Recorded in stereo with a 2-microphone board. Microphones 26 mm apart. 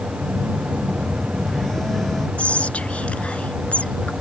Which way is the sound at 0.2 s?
15° left (ahead or behind).